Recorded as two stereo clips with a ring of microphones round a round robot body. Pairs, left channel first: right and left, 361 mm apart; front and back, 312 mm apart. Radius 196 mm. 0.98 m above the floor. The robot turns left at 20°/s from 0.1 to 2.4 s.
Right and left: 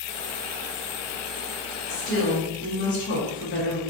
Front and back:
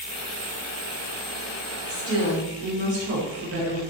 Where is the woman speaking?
130° right, 1.0 m; by 3.8 s 140° right, 1.0 m.